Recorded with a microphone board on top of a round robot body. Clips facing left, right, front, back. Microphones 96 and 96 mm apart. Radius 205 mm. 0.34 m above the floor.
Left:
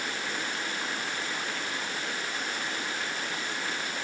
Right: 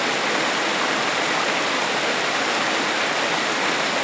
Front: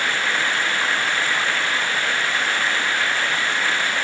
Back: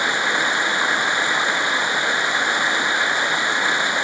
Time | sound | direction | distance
0.0 | running water | 105° right | ?